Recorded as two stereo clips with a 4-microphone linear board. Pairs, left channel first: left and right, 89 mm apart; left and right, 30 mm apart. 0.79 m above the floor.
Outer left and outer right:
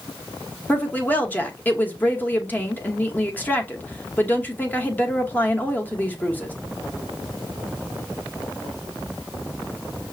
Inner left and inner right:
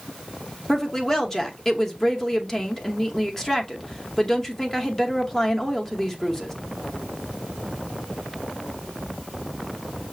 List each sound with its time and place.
0.7 s a woman speaking: 20° left (ahead or behind), 0.9 m